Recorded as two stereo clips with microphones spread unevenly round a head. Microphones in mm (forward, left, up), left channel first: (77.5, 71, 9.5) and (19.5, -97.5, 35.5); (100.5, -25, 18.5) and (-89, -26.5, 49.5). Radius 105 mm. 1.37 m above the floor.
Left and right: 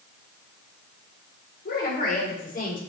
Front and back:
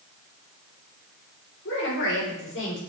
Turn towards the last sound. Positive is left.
turn(degrees=25)